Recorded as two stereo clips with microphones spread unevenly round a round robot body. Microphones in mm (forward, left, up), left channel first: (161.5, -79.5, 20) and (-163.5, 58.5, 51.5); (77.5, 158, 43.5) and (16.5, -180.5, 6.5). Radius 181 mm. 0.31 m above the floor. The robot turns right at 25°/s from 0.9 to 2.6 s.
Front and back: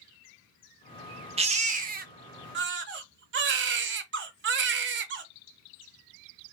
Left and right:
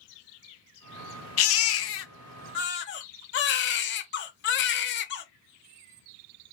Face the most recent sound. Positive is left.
turn(degrees=120)